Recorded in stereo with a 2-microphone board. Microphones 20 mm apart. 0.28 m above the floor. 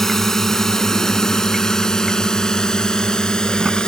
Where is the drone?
20° left (ahead or behind); by 3.9 s 45° left (ahead or behind).